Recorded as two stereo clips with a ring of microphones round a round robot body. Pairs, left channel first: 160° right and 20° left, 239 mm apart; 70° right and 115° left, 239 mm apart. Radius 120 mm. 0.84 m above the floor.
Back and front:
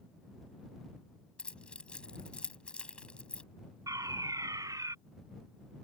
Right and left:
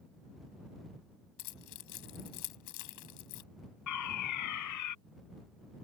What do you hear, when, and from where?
1.4 s keys jangling: 70° right
3.9 s a fire alarm: 55° right